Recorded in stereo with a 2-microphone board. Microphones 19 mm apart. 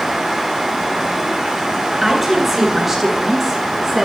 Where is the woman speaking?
20° right (ahead or behind), 8 m; by 4.0 s 30° right (ahead or behind), 8 m.